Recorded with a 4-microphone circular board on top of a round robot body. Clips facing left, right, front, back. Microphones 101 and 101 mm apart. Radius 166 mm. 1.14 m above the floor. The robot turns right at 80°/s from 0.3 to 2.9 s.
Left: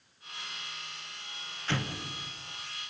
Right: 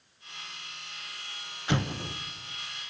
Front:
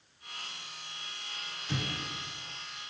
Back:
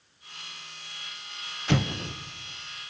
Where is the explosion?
165° right, 1.1 m; by 2.1 s 125° right, 1.1 m.